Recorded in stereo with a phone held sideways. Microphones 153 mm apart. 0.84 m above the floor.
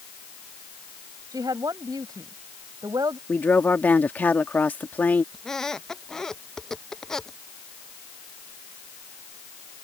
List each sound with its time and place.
1.3 s a woman speaking: 25° right (ahead or behind)
3.3 s a woman speaking: 10° left (ahead or behind)
5.3 s a squeak: 5° left (ahead or behind)